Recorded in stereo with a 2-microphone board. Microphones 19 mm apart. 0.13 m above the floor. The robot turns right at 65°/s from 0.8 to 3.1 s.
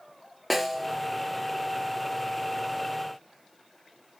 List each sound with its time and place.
0.5 s a snare drum: centre (ahead or behind), 1.5 m; by 0.9 s 5° left (ahead or behind), 1.5 m